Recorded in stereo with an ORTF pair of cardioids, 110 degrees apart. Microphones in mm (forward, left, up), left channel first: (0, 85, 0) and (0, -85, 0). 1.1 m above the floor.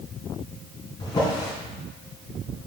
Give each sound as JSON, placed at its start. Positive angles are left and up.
{"t": 1.0, "sound": "a drawer", "azimuth_deg": 25, "distance_m": 3.0}